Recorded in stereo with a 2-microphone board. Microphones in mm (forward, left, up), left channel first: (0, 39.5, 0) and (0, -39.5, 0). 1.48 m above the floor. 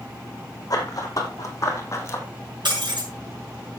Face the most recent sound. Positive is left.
turn(degrees=-75)  # may be behind; listen again after turning